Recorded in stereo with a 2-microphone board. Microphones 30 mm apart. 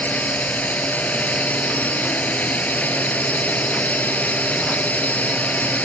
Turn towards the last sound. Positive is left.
turn(degrees=55)  # may be behind; listen again after turning